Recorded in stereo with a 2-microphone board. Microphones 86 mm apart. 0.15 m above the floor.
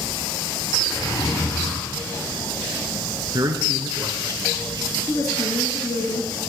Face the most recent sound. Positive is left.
turn(degrees=50)  # may be behind; listen again after turning